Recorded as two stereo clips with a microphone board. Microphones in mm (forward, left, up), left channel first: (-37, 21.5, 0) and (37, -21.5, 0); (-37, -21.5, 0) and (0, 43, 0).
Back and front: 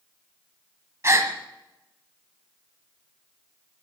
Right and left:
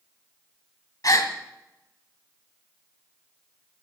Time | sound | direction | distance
1.0 | a gasp | 85° right | 1.8 m